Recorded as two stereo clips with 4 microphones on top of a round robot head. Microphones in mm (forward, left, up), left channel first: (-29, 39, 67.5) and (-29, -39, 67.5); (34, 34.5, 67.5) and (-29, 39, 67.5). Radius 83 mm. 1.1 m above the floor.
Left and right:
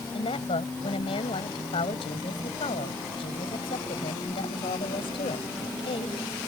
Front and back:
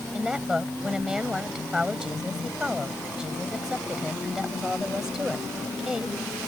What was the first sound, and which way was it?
A woman speaking, 95° left.